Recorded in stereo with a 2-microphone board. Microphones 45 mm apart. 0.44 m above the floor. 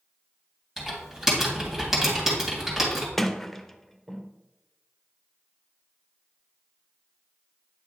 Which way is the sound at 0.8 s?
5° right (ahead or behind).